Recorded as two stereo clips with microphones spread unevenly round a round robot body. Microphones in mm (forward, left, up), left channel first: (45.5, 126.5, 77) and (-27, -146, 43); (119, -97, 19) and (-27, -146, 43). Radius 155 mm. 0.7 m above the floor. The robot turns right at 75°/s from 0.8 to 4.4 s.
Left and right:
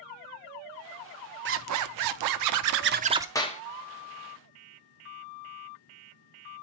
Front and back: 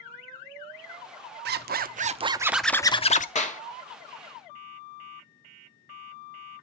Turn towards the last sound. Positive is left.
turn(degrees=70)